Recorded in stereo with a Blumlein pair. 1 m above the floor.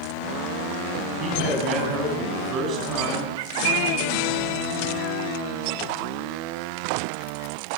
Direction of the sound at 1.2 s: 30° right.